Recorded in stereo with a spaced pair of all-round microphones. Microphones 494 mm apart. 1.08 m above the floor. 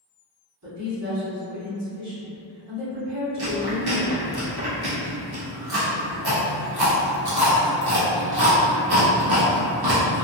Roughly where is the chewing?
Right.